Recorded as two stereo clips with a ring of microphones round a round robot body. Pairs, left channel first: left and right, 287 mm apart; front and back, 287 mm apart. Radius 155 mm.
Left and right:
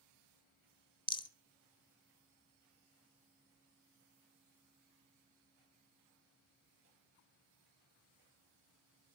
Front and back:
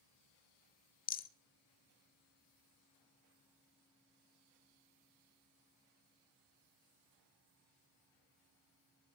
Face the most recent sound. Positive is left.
turn(degrees=30)